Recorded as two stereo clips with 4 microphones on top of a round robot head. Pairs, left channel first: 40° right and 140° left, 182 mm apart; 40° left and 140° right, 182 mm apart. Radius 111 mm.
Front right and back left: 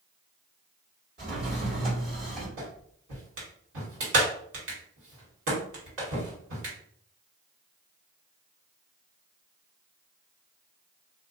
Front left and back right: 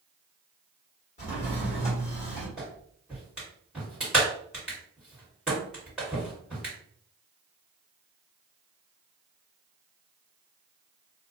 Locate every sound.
1.2 s a drawer: 95° left, 1.4 m
2.6 s a clap: 130° left, 1.7 m